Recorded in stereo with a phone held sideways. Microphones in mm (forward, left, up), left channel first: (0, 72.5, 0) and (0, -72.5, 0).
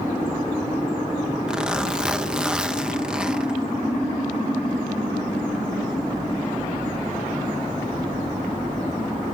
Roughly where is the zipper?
Centre.